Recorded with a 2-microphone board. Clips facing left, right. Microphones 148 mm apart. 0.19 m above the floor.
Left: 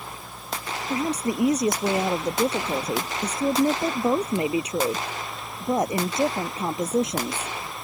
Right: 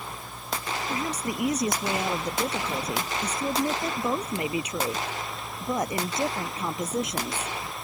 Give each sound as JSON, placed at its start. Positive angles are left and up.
{"t": 0.9, "sound": "a woman speaking", "side_deg": 30}